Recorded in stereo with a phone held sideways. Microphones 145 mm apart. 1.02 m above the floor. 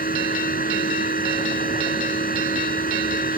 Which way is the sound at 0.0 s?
75° left (ahead or behind).